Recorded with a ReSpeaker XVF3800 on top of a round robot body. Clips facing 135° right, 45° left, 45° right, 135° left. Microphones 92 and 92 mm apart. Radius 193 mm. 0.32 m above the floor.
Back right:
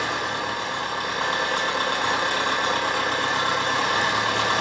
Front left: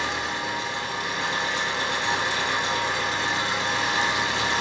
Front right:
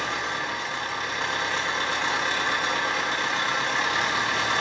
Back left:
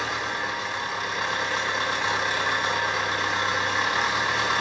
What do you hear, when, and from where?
0.0 s an engine running: 140° right, 1.1 m